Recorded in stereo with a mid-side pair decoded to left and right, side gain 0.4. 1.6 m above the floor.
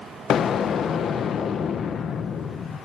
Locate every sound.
0.3 s an explosion: 65° left, 1.3 m